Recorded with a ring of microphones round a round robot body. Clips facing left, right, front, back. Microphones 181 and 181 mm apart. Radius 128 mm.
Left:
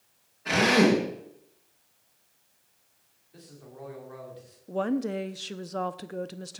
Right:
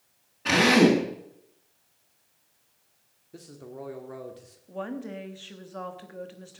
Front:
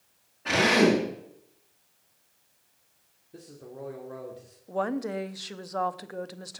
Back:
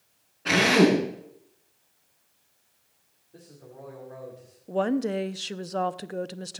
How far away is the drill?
About 6.5 m.